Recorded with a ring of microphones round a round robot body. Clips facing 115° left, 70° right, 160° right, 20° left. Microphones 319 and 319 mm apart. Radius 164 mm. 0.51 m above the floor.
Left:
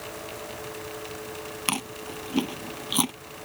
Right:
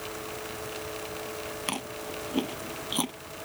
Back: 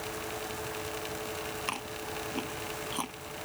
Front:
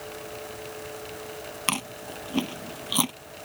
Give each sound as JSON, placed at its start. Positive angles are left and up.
{"t": 1.7, "sound": "chewing", "azimuth_deg": 50}